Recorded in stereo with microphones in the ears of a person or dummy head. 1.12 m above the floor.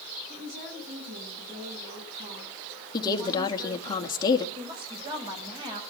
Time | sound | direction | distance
0.3 | a woman speaking | 50° right (ahead or behind) | 7 m
2.9 | a woman speaking | 25° left (ahead or behind) | 2.5 m
4.5 | a woman speaking | 25° right (ahead or behind) | 6 m